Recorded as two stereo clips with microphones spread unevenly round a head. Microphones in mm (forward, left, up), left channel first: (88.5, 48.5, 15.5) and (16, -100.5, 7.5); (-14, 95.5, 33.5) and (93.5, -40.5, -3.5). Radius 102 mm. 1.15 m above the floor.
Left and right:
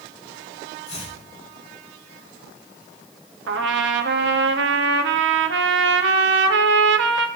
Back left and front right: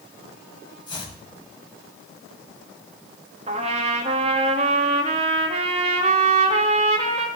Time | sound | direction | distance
0.9 | chopping | 65° left | 7.5 m
3.5 | a trumpet | 115° right | 1.1 m